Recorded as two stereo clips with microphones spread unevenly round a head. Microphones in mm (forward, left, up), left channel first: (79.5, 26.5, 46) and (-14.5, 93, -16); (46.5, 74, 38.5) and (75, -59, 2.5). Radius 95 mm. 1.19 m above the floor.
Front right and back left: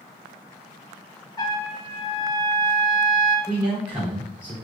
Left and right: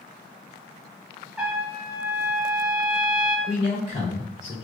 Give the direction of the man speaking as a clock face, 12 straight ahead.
10 o'clock.